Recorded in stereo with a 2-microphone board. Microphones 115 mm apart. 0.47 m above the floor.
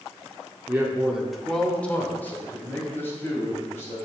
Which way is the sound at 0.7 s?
20° right (ahead or behind).